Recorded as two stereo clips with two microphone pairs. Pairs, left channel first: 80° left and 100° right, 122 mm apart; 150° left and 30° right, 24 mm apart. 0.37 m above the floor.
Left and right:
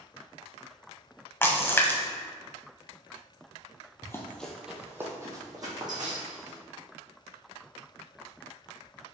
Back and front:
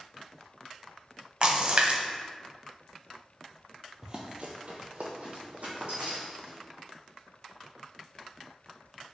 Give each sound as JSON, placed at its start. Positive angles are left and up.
{"t": 1.4, "sound": "a splash", "azimuth_deg": 10, "distance_m": 0.5}
{"t": 4.0, "sound": "running footsteps", "azimuth_deg": 20, "distance_m": 0.6}